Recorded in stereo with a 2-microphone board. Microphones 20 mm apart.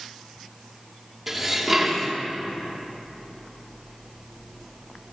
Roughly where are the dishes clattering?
Centre.